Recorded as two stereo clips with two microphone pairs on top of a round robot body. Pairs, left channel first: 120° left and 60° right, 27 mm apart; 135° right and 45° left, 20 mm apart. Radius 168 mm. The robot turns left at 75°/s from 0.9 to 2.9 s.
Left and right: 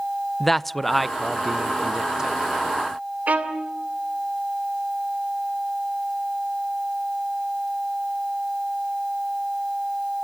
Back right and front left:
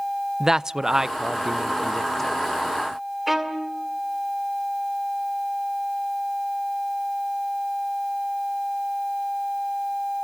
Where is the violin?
40° right, 2.5 m.